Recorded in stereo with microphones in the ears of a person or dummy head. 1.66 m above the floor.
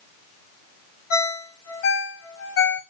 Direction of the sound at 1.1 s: 60° left (ahead or behind).